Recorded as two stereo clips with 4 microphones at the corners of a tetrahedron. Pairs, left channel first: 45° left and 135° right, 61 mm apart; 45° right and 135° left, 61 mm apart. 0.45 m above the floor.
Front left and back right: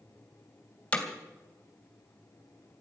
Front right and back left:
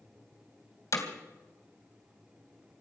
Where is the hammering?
25° right, 2.5 m.